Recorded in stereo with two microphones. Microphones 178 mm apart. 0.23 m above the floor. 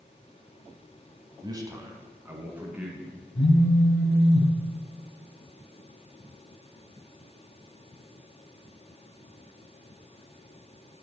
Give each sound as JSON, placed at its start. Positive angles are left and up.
{"t": 1.4, "sound": "a man speaking", "side_deg": -25, "distance_m": 1.3}
{"t": 3.4, "sound": "a phone buzzing", "side_deg": 65, "distance_m": 1.7}